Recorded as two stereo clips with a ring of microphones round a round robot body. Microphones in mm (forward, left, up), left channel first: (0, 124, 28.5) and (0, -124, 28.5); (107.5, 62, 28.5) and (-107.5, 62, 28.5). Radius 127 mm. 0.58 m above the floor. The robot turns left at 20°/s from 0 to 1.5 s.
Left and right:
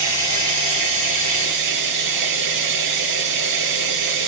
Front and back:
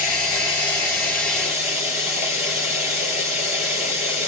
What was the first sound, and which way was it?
Running water, 60° right.